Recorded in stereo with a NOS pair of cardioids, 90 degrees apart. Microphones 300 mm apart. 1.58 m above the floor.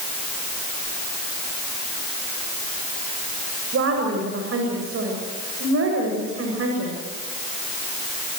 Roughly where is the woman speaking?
Ahead right.